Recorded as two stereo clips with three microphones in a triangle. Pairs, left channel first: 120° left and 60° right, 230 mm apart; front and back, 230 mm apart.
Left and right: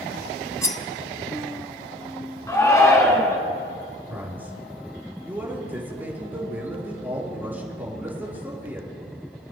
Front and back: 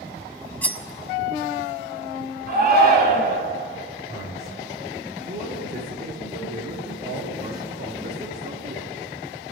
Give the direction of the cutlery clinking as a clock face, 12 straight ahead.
10 o'clock.